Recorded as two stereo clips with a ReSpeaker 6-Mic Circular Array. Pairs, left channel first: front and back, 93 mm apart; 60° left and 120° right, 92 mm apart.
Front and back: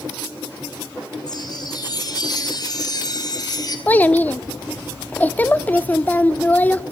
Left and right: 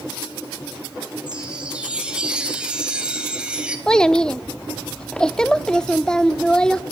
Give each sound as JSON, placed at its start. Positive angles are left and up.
{"t": 1.3, "sound": "a chime", "azimuth_deg": -40, "distance_m": 4.0}
{"t": 3.9, "sound": "a child speaking", "azimuth_deg": 0, "distance_m": 0.7}